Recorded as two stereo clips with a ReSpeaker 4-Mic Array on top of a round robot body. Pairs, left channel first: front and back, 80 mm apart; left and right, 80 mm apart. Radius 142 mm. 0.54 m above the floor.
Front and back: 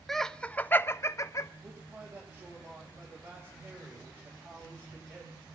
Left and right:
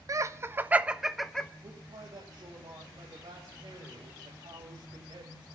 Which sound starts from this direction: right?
Laughter, at 0.1 s.